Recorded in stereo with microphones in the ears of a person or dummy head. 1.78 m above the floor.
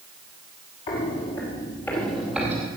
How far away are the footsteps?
About 2.5 m.